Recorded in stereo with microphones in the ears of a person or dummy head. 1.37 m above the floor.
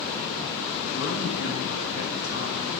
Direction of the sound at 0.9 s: 55° left (ahead or behind).